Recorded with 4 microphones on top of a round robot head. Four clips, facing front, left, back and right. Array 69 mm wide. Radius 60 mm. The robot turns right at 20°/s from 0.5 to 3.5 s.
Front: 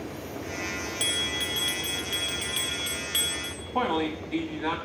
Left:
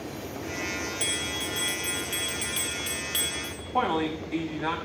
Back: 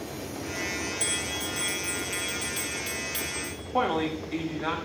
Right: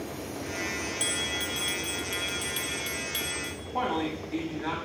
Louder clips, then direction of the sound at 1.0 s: Even, front 2 dB; straight ahead.